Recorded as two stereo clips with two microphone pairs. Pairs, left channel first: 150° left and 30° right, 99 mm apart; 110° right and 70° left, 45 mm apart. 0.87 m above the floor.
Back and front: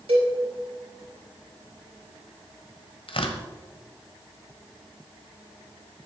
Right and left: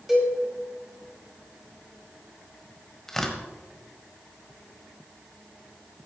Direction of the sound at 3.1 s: 170° left.